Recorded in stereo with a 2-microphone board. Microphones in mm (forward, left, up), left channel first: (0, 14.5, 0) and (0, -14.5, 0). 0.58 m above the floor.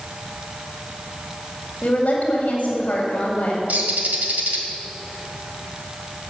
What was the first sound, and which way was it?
A woman speaking, 60° left (ahead or behind).